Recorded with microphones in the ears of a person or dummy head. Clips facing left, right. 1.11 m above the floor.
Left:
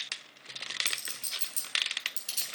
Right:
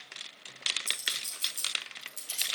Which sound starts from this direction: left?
A clink, at 0.9 s.